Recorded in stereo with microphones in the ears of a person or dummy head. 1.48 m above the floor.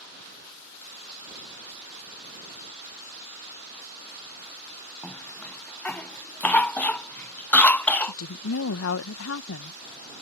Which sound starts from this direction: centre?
A cough, at 5.0 s.